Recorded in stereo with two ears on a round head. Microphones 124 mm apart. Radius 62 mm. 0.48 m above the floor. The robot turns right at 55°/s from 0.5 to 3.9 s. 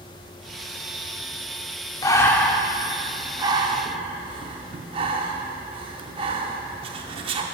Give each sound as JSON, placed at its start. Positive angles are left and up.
{"t": 2.0, "sound": "breathing", "side_deg": 25, "distance_m": 0.5}